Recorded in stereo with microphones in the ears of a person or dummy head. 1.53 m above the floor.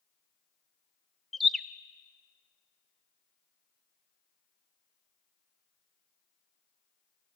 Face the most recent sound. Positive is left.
turn(degrees=0)  # may be behind; listen again after turning